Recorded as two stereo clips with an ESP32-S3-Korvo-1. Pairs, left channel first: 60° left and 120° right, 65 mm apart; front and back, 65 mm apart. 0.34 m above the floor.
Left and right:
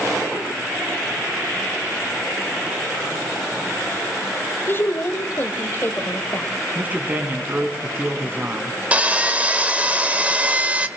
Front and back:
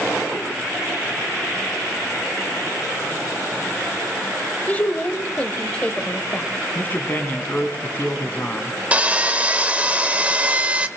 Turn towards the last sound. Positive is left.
turn(degrees=-150)